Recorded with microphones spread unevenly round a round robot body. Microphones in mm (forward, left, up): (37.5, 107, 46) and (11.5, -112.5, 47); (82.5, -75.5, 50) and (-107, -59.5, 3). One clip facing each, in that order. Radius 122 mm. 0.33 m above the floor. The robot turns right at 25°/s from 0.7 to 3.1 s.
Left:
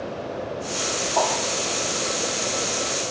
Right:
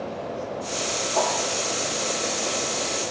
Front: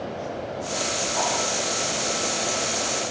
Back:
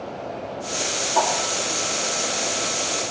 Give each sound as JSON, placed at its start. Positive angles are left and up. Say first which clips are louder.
{"t": 1.1, "sound": "a whoosh", "louder": "left 1 dB, back 6 dB", "azimuth_deg": -175, "distance_m": 8.0}